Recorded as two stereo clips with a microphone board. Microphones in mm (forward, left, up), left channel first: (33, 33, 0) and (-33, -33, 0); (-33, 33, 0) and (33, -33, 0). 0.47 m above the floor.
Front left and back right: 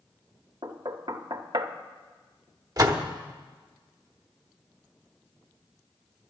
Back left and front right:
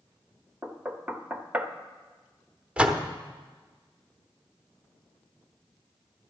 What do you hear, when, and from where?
0.6 s knocking: 115° right, 0.8 m
2.8 s a door slam: 115° right, 0.9 m